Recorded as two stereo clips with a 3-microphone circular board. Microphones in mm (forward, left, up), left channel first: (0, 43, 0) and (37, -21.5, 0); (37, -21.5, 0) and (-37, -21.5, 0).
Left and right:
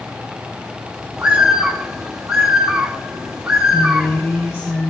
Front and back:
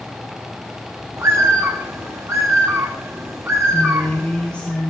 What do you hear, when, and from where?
1.2 s a bird: 140° right, 2.5 m
3.7 s a woman speaking: 70° left, 2.5 m